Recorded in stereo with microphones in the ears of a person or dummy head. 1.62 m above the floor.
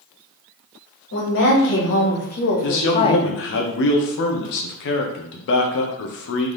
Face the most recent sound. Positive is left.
turn(degrees=60)  # may be behind; listen again after turning